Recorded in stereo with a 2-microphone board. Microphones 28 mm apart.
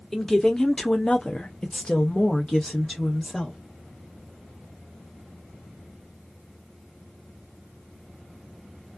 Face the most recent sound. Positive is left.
turn(degrees=25)  # may be behind; listen again after turning